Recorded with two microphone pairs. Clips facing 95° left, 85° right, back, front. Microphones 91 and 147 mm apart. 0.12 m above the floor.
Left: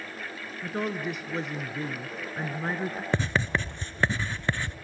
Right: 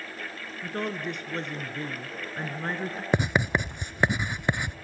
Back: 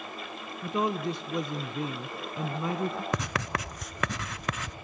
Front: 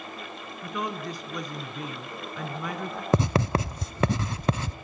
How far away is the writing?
About 0.7 m.